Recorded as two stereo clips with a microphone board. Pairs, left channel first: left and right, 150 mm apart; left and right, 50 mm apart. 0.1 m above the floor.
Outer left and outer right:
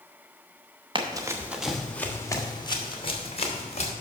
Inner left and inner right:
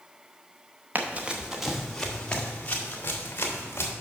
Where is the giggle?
I don't hear a giggle.